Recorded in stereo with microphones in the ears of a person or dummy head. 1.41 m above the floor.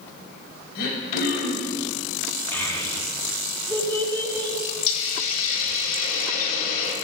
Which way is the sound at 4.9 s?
50° left (ahead or behind).